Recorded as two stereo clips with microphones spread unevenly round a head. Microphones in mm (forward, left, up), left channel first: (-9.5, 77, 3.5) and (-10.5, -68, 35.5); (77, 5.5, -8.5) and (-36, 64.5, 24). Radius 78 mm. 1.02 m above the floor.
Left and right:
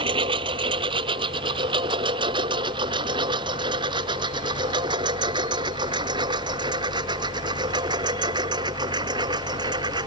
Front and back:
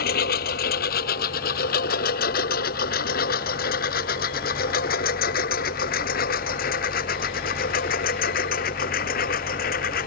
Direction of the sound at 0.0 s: 35° right.